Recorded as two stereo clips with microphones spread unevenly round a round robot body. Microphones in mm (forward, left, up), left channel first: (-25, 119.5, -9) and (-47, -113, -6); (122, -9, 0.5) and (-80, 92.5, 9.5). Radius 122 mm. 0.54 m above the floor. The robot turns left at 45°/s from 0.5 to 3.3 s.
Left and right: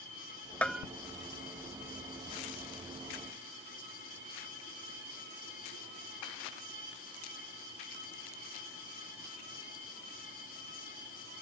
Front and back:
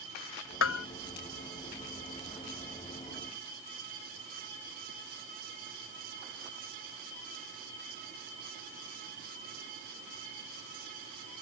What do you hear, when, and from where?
0.6 s a bell: straight ahead; by 0.8 s 10° right